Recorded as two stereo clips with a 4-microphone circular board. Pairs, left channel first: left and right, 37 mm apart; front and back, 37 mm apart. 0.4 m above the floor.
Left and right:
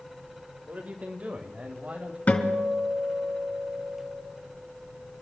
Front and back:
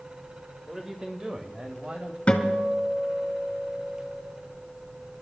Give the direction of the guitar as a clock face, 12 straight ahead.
10 o'clock.